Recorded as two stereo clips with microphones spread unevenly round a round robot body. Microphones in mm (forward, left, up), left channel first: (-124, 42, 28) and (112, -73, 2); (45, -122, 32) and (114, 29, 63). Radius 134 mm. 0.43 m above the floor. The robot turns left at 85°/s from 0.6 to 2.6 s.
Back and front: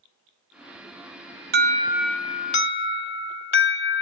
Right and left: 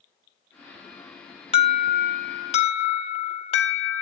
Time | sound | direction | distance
1.5 | an alarm | 70° right | 3 m